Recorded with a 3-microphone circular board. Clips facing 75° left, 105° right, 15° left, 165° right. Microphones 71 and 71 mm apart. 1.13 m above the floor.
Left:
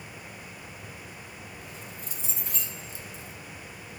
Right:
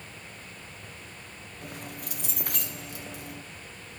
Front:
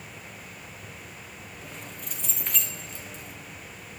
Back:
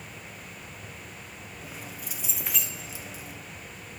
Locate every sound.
1.6 s keys jangling: 80° right, 0.6 m